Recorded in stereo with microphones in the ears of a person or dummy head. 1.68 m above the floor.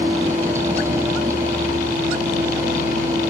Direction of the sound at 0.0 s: 15° right (ahead or behind).